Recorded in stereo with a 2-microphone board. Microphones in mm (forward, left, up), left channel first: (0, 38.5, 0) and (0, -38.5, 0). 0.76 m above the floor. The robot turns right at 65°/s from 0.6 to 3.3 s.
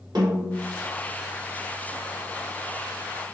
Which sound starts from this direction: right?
A snare drum, at 0.1 s.